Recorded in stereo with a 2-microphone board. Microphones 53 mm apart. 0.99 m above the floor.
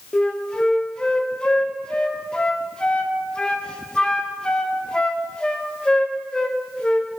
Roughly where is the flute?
Centre.